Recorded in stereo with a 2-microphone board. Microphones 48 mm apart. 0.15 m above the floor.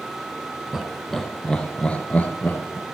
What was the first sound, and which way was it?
Laughter, 5° right (ahead or behind).